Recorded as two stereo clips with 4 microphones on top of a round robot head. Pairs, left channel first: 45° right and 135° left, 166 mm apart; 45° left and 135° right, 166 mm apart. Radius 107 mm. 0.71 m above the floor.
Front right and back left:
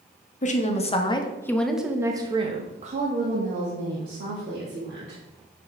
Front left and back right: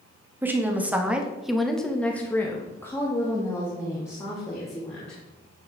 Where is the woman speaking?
60° right, 1.1 m; by 5.2 s 115° left, 2.5 m.